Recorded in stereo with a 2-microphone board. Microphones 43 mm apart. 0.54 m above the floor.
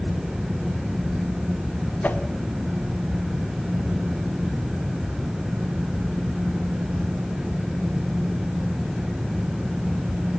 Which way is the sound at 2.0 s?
40° left (ahead or behind).